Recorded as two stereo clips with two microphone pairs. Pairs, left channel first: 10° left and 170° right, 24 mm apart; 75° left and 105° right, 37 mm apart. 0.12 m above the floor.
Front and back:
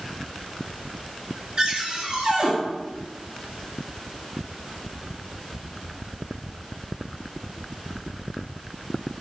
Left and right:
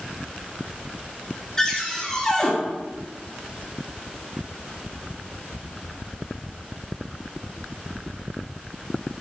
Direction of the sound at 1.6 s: 135° left.